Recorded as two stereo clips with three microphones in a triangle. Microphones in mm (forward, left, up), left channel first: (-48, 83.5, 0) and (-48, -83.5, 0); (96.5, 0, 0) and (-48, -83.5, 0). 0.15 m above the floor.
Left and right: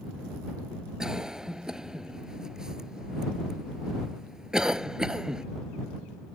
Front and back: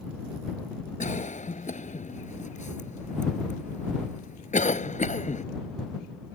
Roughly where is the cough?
Ahead.